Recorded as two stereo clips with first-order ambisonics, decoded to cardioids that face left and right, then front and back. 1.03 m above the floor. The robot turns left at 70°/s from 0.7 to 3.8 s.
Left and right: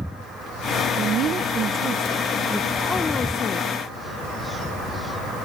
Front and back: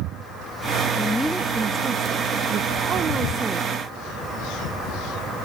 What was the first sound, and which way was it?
A woman speaking, 65° right.